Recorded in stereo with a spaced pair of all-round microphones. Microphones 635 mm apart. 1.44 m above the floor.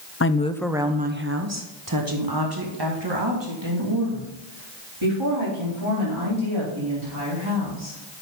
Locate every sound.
0.2 s a woman speaking: 25° left (ahead or behind), 0.6 m; by 8.0 s 50° right (ahead or behind), 5 m